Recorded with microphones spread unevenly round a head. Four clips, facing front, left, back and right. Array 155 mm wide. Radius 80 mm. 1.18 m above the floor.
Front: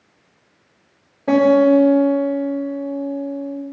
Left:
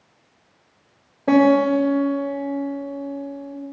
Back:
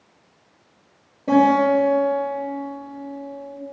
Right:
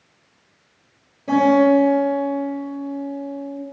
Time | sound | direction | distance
1.3 | a guitar | 110° left | 3 m